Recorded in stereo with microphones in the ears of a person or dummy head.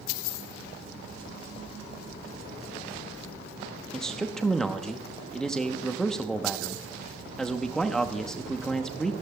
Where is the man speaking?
5° left (ahead or behind), 0.8 m.